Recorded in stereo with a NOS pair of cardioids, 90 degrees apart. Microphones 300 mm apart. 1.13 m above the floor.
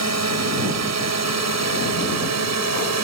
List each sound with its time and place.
0.0 s a drone: 65° right